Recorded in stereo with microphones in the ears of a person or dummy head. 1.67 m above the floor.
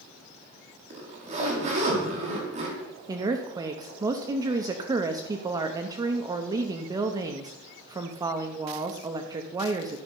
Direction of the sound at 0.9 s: 35° right (ahead or behind).